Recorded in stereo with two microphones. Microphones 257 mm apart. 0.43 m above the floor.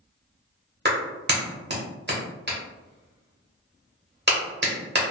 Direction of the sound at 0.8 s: 40° right (ahead or behind).